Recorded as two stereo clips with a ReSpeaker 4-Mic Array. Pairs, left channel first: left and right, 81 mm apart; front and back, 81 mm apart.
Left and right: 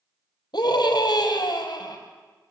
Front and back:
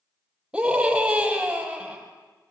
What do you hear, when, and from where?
0.5 s a scream: 105° left, 5 m